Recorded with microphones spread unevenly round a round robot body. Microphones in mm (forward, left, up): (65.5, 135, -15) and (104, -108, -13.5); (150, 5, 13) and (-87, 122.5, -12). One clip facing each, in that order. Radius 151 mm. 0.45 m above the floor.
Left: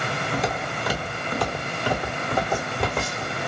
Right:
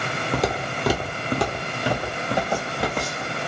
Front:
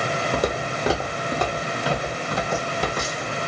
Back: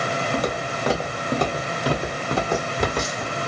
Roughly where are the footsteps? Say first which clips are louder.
Right 5 dB, front 1 dB; right.